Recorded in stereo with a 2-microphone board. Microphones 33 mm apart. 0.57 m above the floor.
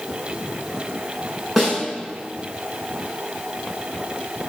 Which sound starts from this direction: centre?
A snare drum, at 1.6 s.